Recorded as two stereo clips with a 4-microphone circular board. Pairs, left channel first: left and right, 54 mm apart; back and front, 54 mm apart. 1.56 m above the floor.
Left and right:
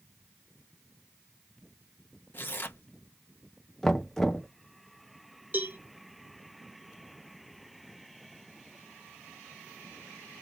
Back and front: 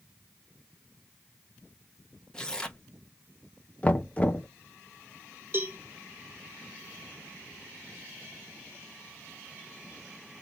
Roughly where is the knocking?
Behind.